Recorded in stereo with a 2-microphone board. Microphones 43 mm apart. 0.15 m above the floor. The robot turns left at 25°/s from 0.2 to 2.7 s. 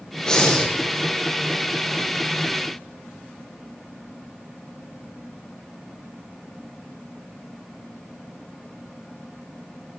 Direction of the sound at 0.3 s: 15° left (ahead or behind).